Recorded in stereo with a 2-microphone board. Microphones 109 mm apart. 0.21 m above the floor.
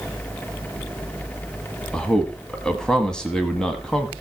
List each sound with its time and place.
1.9 s a man speaking: 10° left (ahead or behind), 1.1 m